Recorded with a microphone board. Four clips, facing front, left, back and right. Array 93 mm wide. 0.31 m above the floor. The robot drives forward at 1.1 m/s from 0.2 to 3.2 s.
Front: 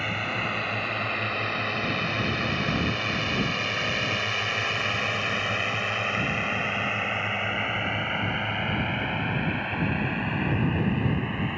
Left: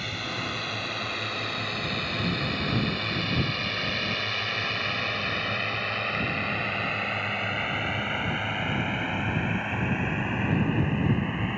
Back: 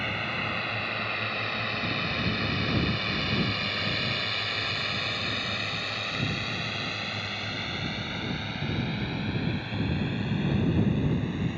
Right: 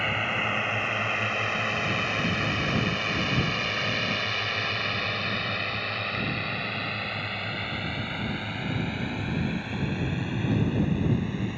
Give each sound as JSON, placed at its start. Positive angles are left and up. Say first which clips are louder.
{"t": 0.0, "sound": "a drone", "louder": "right 6 dB, front 2 dB", "azimuth_deg": -75}